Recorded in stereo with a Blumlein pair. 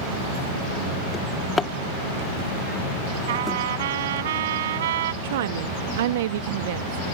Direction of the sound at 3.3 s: 60° right.